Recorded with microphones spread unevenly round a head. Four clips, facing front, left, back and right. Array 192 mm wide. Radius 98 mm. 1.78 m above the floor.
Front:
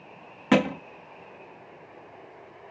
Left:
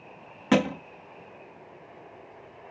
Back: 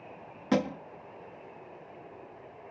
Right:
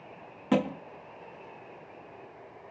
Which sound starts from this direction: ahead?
A thud, at 0.5 s.